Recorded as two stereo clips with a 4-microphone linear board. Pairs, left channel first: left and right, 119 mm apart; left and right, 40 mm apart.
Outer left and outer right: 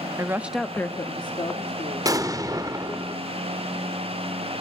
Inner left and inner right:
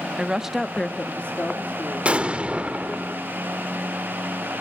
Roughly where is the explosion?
Right.